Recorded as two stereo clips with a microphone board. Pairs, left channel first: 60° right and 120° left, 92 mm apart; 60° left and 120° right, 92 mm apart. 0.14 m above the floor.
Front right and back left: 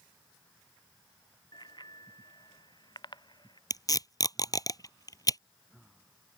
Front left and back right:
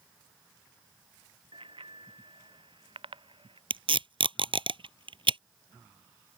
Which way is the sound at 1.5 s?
100° right.